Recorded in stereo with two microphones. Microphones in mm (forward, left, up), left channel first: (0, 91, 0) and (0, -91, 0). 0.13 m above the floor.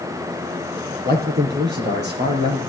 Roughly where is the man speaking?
Right.